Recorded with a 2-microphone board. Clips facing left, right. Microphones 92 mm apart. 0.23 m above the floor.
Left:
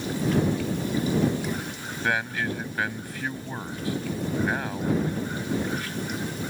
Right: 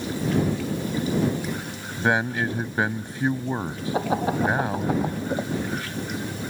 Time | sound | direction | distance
2.0 | a man speaking | 25° right (ahead or behind) | ?
3.9 | laughter | 80° right | ?